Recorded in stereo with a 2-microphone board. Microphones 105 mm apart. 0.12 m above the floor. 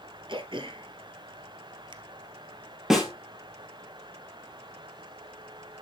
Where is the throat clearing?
50° right (ahead or behind), 1.0 m.